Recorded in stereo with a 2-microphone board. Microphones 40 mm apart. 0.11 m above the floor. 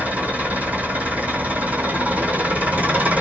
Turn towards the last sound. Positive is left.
turn(degrees=-40)  # may be behind; listen again after turning